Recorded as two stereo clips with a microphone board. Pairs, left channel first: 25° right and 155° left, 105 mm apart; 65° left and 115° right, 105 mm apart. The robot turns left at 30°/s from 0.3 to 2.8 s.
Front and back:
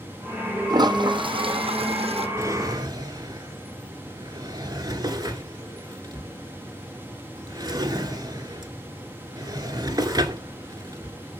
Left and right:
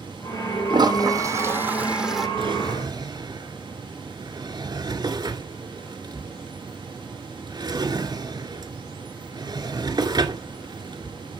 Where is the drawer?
140° right, 2 m; by 11.4 s 155° right, 2 m.